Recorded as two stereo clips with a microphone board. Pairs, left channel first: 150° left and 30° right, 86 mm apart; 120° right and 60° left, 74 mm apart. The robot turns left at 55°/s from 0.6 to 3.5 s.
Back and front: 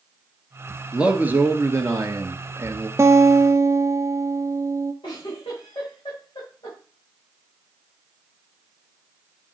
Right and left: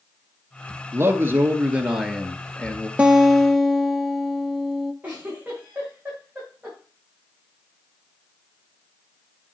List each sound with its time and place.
0.9 s a man speaking: 40° left, 1.5 m; by 2.9 s 65° right, 1.5 m
3.0 s a guitar: straight ahead, 0.8 m; by 4.9 s 30° right, 0.8 m
5.0 s a giggle: 130° left, 5.5 m